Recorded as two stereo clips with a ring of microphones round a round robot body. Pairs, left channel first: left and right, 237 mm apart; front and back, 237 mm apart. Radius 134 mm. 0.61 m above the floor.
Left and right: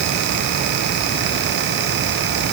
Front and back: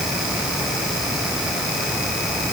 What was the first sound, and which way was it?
Only background noise.